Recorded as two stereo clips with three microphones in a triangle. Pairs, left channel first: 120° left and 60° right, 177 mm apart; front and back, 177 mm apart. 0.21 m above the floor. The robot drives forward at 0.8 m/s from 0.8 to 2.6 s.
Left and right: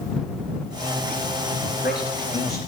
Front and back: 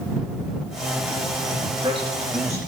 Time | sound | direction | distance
1.6 | a man speaking | 120° left | 2.5 m